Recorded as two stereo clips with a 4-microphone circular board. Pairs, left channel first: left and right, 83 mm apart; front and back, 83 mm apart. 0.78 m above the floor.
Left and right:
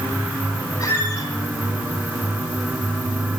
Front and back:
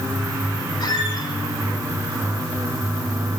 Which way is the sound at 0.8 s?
35° left.